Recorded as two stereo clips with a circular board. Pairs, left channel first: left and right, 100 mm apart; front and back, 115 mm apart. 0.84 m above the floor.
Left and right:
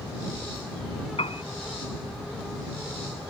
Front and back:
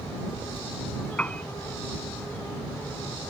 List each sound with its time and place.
1.2 s a piano: 80° left